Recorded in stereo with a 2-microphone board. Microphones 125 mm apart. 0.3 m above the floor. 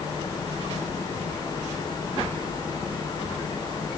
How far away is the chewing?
No chewing in this recording.